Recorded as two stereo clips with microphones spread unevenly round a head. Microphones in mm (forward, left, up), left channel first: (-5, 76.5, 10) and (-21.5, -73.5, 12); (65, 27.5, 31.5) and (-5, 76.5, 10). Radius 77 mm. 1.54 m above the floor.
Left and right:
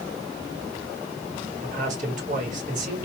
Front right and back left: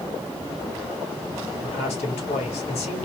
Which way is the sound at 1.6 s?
50° right.